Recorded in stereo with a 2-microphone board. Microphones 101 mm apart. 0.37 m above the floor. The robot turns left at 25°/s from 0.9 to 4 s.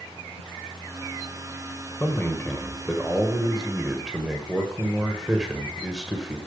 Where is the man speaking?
45° left, 1.7 m; by 6.4 s 5° right, 1.7 m.